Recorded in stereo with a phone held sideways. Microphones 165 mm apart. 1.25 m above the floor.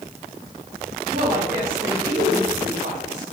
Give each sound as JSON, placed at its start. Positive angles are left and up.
{"t": 1.1, "sound": "a woman speaking", "side_deg": -80, "distance_m": 2.0}